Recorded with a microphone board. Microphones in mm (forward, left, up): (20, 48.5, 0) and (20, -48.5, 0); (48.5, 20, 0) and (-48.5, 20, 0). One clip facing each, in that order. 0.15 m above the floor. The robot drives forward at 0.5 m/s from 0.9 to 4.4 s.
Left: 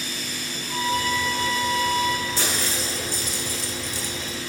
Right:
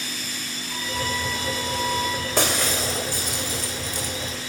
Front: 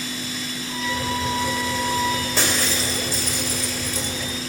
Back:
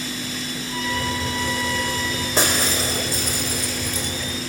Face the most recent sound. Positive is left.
turn(degrees=-135)